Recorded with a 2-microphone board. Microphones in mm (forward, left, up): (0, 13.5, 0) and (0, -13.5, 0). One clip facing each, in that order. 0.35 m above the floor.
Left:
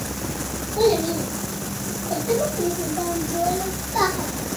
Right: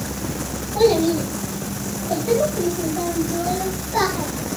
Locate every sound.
0.8 s a child speaking: 25° right (ahead or behind), 9 m; by 4.3 s 35° right (ahead or behind), 7.5 m